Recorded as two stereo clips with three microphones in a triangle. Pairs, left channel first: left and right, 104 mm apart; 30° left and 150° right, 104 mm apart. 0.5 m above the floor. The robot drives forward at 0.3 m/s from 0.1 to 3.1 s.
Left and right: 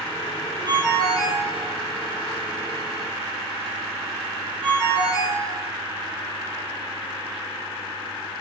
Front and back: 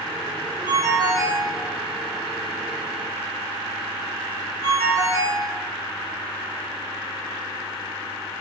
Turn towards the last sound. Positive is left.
turn(degrees=-150)